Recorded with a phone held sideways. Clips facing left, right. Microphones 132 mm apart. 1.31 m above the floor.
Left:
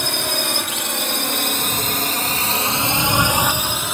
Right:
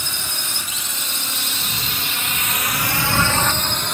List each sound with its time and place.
0.0 s a drone: 70° left (ahead or behind); by 3.9 s 5° left (ahead or behind)